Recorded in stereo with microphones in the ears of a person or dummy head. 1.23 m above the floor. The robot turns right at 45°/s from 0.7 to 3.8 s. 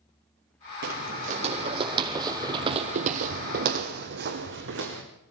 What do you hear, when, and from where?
0.8 s footsteps: 55° right (ahead or behind), 3.5 m; by 5.0 s 65° right (ahead or behind), 4 m